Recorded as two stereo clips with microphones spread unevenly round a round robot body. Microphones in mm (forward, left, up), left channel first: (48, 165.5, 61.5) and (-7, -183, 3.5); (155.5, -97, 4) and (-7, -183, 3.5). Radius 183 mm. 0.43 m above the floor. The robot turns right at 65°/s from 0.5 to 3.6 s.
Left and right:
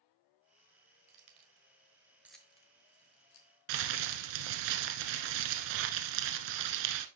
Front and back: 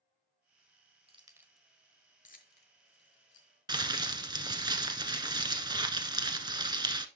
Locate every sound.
1.1 s keys jangling: 95° right, 1.3 m; by 3.5 s 65° left, 1.3 m
3.7 s crumpling: 85° right, 1.1 m